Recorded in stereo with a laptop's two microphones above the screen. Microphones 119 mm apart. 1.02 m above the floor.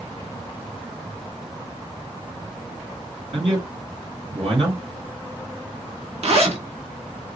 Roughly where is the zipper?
Right.